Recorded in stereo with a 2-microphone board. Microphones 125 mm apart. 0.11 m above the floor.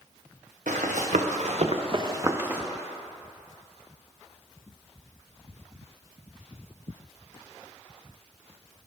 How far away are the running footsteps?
About 1.5 m.